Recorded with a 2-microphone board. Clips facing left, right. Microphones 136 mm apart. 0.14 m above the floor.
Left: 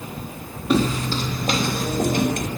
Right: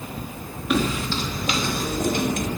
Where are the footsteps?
30° left (ahead or behind), 1.6 m; by 2.5 s 55° left (ahead or behind), 3 m.